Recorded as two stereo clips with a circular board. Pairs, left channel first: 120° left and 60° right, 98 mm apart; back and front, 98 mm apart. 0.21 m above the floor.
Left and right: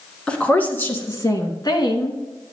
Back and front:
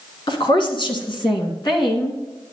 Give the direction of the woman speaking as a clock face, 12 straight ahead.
5 o'clock.